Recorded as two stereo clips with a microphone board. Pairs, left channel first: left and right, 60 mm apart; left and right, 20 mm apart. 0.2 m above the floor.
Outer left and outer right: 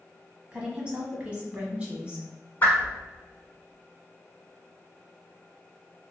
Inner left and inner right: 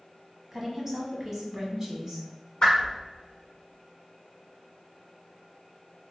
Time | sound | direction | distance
0.5 | a woman speaking | 20° right (ahead or behind) | 1.0 m
2.6 | a whoosh | 30° left (ahead or behind) | 1.4 m